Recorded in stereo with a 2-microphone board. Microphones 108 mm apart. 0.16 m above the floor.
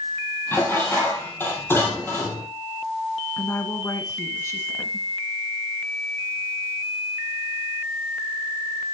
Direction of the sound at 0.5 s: 20° left (ahead or behind).